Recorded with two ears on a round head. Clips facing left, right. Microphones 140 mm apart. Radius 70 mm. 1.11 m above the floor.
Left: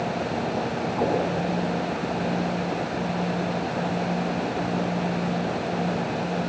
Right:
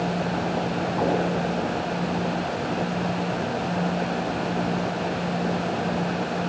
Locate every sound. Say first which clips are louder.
1.0 s knocking: even; 15° left (ahead or behind), 8 m